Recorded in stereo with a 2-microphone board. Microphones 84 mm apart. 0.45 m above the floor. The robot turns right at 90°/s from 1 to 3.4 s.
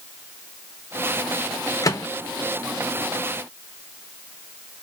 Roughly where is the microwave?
Left.